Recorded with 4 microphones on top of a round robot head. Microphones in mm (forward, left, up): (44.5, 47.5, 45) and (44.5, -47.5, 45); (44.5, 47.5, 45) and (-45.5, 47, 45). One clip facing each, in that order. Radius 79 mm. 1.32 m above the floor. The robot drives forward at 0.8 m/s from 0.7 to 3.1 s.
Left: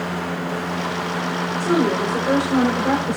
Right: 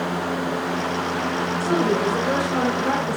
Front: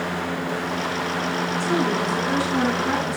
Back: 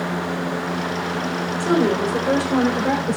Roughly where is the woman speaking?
Behind.